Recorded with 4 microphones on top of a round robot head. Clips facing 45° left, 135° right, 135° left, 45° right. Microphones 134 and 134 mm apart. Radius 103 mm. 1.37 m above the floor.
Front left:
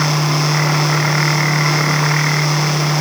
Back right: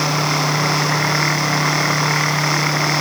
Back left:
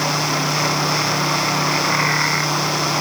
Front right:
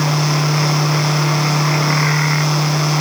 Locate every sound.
Only background noise.